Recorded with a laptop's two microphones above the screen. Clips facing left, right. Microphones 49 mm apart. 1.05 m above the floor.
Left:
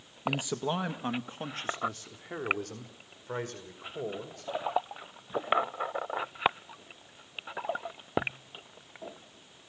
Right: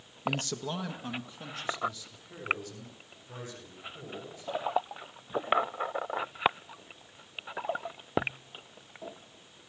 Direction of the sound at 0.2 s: 5° left (ahead or behind).